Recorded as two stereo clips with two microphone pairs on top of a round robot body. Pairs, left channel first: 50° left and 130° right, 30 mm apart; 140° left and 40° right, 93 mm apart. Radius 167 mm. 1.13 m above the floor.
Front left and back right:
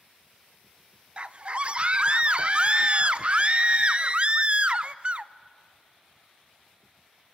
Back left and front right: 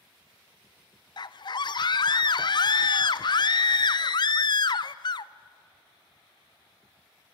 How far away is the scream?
About 0.8 m.